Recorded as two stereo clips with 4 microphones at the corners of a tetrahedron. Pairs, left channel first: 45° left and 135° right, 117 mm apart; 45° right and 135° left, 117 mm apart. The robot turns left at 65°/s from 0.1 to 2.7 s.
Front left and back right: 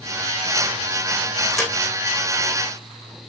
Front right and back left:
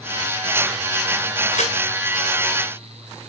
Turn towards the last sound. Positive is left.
turn(degrees=-115)